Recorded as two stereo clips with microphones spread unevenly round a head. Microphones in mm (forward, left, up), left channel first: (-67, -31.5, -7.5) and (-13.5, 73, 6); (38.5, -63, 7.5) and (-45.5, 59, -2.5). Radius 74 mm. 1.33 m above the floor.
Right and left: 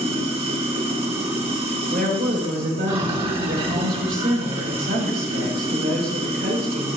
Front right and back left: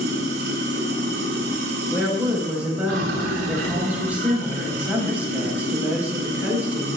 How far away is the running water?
About 4.5 m.